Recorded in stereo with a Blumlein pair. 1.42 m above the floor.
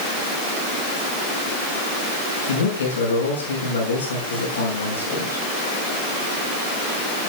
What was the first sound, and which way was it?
A man speaking, 65° left.